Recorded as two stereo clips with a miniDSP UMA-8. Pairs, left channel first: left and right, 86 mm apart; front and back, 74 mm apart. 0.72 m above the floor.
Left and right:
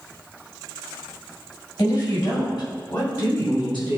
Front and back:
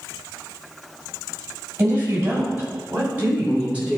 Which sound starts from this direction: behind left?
A woman speaking, at 1.8 s.